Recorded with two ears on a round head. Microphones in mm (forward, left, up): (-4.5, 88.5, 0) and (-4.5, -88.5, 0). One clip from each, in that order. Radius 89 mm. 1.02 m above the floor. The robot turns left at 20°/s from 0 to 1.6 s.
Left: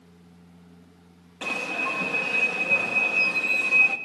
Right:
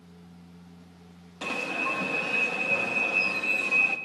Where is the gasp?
No gasp in this recording.